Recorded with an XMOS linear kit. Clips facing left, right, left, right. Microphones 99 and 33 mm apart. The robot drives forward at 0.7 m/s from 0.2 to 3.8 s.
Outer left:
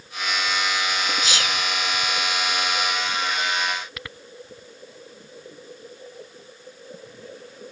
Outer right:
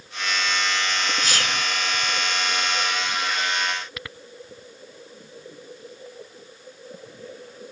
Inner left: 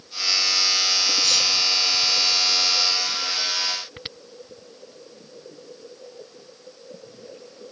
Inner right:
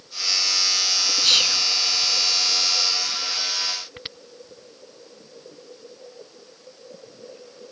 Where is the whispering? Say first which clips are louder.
Even, inner right 2 dB; 55° right (ahead or behind).